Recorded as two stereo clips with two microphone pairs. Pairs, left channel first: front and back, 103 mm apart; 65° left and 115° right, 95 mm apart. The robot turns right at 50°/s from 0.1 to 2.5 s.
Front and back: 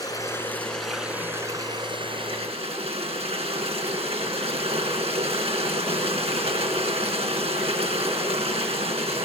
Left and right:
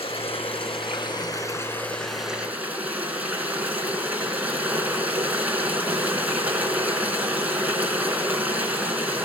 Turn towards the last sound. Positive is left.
turn(degrees=170)